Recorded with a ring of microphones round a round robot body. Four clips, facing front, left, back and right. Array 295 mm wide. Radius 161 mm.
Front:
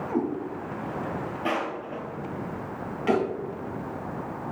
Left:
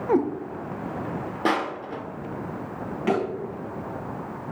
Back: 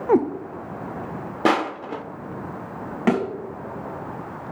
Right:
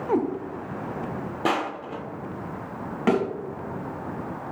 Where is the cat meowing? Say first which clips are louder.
Left 2 dB, back 10 dB; 170° left, 1.0 m.